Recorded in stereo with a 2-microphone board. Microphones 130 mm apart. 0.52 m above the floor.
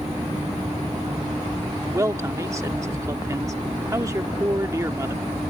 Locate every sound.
1.9 s a man speaking: 25° right (ahead or behind)